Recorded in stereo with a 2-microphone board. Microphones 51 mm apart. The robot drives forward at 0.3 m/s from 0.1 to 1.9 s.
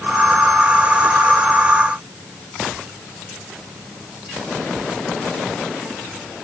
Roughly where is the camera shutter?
No camera shutter in this recording.